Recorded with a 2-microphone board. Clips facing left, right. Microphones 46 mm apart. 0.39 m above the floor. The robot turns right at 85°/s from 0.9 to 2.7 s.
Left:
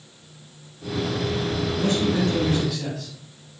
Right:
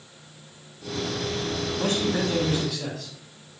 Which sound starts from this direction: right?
A man speaking, at 1.8 s.